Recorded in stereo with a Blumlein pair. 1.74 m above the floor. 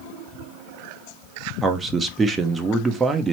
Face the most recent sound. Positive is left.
turn(degrees=-15)